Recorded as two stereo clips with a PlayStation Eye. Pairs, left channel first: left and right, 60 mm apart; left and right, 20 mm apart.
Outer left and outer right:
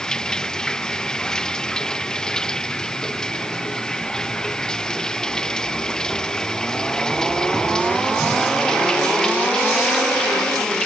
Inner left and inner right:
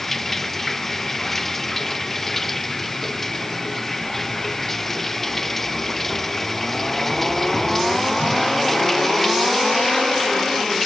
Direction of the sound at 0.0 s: 10° left (ahead or behind).